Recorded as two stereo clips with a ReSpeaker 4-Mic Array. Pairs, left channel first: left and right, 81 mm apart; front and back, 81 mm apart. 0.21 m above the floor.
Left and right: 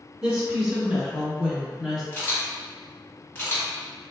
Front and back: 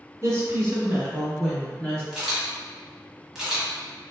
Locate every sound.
0.2 s a woman speaking: 170° right, 1.4 m; by 2.0 s 15° left, 1.1 m
2.1 s a camera shutter: 105° left, 1.3 m